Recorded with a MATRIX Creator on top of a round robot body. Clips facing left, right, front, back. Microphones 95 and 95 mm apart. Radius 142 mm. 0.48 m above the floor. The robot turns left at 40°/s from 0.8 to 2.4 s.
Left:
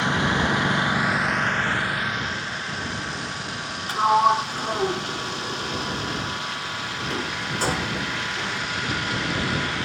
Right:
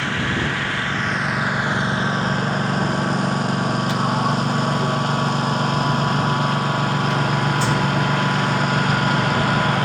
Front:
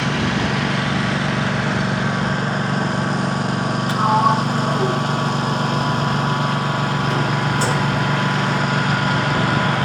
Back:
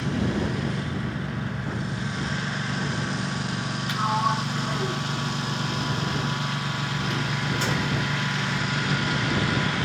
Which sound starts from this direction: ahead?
A lawn mower, at 0.0 s.